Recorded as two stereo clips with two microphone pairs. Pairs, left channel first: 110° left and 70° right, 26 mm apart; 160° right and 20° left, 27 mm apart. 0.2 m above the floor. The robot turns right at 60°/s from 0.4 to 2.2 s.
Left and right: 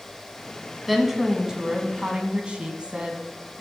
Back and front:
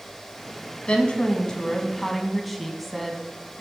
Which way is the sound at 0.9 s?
150° right.